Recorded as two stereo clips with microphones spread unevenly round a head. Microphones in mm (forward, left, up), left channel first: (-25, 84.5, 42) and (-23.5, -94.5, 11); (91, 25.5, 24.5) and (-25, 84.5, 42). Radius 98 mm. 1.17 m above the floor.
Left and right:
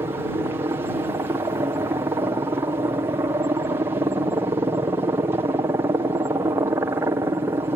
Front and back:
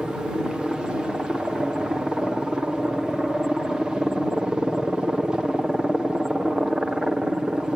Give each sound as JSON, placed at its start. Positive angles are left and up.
{"t": 0.0, "sound": "a helicopter", "azimuth_deg": -110}